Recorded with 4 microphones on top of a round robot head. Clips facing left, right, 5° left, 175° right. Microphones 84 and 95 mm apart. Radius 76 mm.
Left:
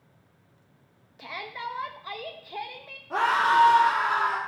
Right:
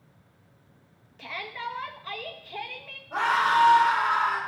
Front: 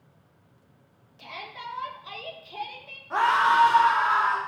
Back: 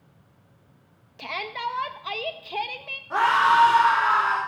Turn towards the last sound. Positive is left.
turn(degrees=100)